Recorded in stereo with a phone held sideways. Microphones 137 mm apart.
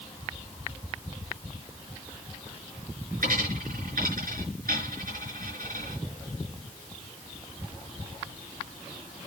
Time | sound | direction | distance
3.2 | a dropped coin | 80° right | 5 m